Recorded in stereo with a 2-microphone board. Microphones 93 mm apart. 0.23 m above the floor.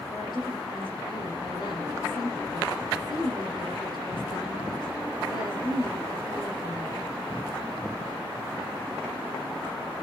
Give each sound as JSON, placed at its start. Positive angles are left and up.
{"t": 0.1, "sound": "a woman speaking", "side_deg": 50, "distance_m": 6.5}